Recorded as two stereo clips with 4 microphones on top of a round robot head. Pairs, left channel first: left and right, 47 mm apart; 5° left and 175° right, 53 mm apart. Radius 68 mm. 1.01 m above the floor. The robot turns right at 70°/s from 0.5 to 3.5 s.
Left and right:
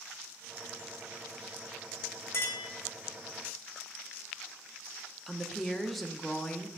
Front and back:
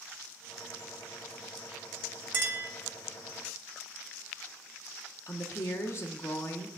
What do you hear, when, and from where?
2.3 s a clink: 135° left, 1.5 m; by 2.7 s 160° left, 1.5 m
5.3 s a woman speaking: 5° left, 1.1 m